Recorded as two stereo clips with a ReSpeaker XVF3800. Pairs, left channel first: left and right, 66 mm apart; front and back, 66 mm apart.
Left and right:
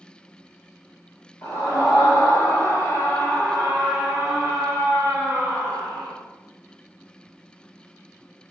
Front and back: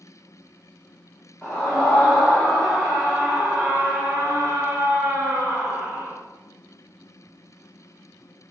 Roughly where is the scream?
Ahead left.